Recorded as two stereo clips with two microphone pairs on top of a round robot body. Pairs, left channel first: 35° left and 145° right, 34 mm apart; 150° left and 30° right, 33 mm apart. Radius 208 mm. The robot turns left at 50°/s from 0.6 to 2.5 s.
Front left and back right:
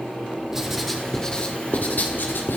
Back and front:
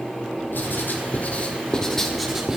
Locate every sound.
0.5 s writing: 135° left, 1.9 m; by 2.6 s 40° left, 1.9 m